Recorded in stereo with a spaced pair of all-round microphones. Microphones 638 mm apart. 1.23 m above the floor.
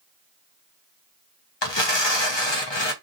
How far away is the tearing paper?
About 0.8 m.